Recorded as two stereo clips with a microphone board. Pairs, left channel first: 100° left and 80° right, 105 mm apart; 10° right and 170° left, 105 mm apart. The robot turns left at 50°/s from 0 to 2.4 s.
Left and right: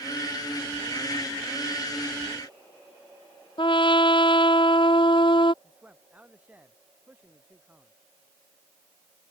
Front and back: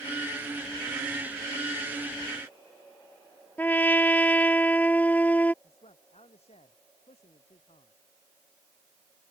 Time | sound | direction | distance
3.6 | a trumpet | 60° left | ?
5.6 | a man speaking | straight ahead | ?